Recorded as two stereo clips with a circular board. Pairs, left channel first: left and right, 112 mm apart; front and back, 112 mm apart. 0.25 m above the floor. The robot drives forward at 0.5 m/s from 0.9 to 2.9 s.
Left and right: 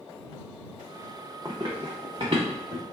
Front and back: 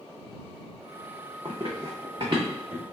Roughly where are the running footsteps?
Behind right.